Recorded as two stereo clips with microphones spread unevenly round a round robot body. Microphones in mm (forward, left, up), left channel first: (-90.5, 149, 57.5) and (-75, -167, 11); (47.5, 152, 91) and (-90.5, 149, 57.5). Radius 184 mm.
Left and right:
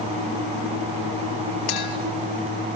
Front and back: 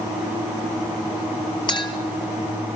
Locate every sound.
1.7 s a clink: 60° left, 5 m